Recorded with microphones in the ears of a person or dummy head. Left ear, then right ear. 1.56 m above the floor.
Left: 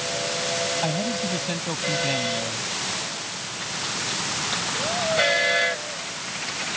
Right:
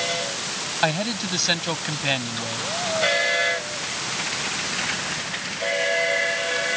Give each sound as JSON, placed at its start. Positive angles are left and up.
{"t": 0.8, "sound": "a man speaking", "side_deg": -60}